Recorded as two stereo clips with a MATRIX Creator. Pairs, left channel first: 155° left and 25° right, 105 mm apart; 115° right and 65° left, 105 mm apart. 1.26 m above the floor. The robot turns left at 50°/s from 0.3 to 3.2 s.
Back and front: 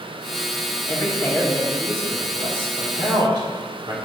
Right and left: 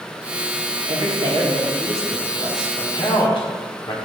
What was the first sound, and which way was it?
A man speaking, 105° left.